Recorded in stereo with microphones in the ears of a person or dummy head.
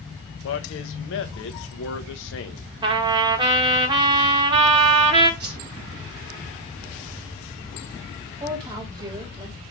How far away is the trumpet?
About 1.7 m.